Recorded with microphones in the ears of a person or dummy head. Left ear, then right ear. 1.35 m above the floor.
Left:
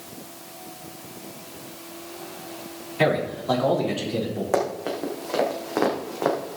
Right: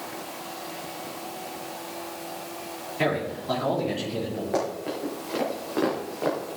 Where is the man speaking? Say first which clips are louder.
Left 4 dB; 30° left (ahead or behind), 3.5 m.